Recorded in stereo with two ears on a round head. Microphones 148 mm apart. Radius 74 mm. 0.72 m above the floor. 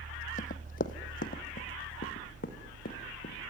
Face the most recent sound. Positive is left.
turn(degrees=60)  # may be behind; listen again after turning